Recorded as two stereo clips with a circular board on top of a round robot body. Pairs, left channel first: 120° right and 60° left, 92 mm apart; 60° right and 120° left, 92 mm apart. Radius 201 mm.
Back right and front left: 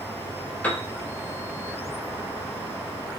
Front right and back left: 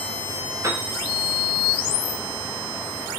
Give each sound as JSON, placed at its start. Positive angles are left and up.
{"t": 0.6, "sound": "a piano", "azimuth_deg": 170, "distance_m": 1.2}